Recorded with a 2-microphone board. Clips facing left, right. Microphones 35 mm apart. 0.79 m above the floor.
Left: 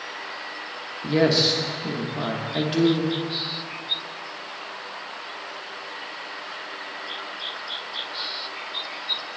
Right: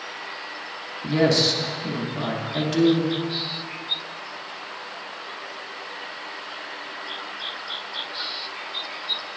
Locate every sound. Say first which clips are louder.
1.0 s a woman speaking: even; 15° left (ahead or behind), 0.8 m